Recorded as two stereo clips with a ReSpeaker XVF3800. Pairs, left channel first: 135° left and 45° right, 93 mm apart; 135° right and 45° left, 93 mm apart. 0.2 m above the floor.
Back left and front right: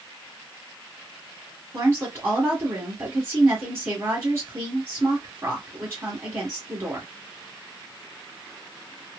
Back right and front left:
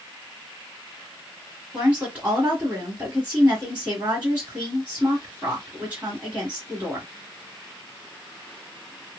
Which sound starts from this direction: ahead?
A woman speaking, at 1.7 s.